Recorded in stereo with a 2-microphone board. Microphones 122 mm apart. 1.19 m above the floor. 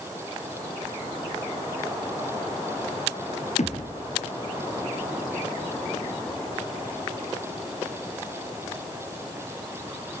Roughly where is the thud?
Left.